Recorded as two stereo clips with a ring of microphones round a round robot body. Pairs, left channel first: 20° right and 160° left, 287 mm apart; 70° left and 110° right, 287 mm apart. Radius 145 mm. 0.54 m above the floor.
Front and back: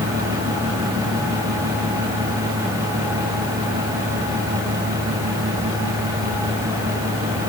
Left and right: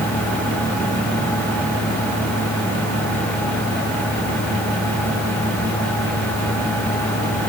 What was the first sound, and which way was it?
Only background noise.